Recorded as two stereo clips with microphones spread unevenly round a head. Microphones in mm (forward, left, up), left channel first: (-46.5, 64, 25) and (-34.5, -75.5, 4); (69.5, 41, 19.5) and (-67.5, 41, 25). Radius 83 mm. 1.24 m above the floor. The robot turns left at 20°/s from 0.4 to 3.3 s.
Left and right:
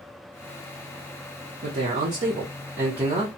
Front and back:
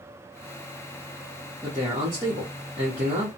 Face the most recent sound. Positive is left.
turn(degrees=-140)